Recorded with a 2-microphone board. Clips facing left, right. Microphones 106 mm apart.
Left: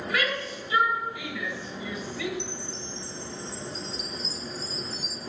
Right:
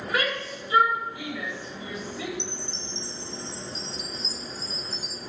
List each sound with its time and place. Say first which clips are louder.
0.1 s a shout: right 2 dB; 30° right (ahead or behind), 2.5 m
2.4 s a chime: even; 25° right (ahead or behind), 0.5 m